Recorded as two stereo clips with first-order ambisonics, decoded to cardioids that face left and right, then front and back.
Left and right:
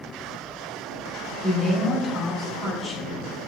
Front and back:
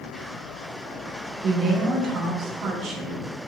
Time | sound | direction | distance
1.4 | a woman speaking | 155° left | 1.0 m